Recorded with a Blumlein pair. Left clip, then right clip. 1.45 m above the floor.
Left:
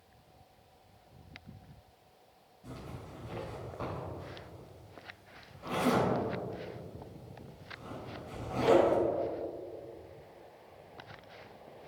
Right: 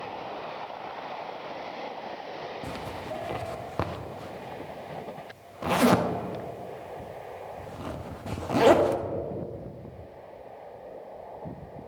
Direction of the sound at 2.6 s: 45° right.